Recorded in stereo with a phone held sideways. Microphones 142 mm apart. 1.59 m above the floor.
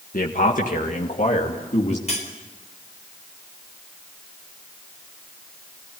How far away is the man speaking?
About 1.8 m.